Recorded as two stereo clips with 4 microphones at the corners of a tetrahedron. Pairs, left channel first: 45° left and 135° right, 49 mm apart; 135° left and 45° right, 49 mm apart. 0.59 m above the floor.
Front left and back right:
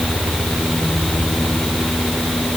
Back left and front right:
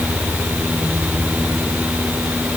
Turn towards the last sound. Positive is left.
No sound to turn to.